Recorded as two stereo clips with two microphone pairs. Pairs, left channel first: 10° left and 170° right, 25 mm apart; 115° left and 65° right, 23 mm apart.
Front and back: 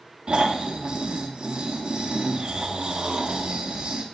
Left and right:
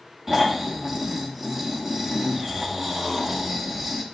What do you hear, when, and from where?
0.3 s snoring: 130° right, 1.4 m